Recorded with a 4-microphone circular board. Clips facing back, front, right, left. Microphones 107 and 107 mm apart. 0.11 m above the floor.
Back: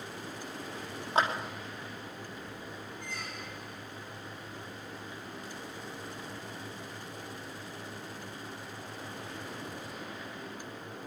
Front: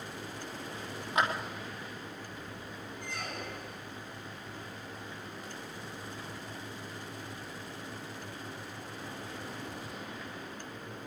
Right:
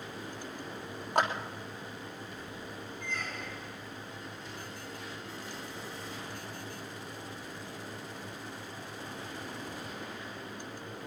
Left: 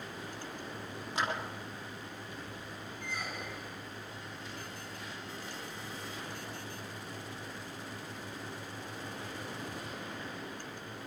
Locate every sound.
1.1 s a clap: 125° right, 3 m
3.0 s a squeak: 15° left, 0.5 m